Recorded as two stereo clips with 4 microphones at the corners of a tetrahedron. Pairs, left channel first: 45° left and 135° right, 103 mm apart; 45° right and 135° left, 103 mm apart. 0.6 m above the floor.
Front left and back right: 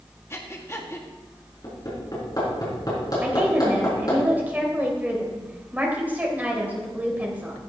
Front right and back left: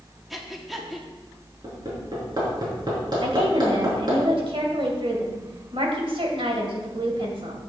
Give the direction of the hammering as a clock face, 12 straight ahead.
9 o'clock.